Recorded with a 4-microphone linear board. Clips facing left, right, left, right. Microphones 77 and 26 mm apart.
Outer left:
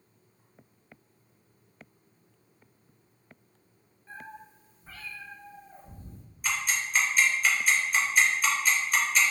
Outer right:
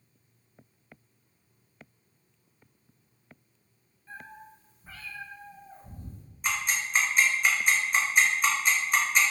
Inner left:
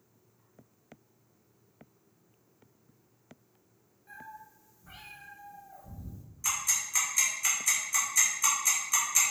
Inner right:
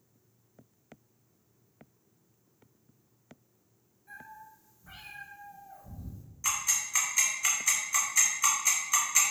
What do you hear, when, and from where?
4.1 s a cat meowing: 20° left (ahead or behind), 1.0 m; by 6.2 s 50° right (ahead or behind), 1.0 m
6.4 s ticking: 20° right (ahead or behind), 0.8 m